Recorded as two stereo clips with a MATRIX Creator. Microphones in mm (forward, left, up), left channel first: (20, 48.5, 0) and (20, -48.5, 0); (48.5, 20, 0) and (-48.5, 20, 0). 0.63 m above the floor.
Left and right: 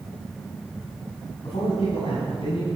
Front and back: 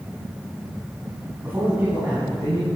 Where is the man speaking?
110° left, 5.5 m; by 2.7 s 120° left, 6 m.